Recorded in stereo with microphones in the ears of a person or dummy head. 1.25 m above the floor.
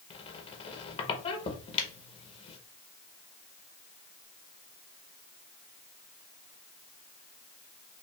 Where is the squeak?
30° left (ahead or behind), 0.9 m.